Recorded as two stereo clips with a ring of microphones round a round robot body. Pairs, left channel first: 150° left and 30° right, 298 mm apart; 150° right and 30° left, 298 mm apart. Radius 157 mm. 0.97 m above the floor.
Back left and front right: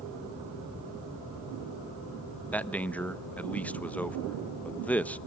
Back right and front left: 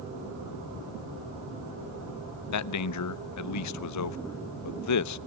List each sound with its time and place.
2.5 s a man speaking: 125° right, 0.7 m